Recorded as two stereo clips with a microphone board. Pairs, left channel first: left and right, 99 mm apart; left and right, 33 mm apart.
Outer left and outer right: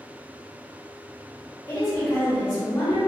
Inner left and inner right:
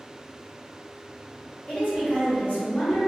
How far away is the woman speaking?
About 1.7 m.